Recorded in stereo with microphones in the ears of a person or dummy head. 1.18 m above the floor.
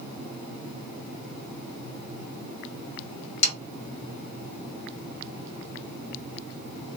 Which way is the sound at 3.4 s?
80° left.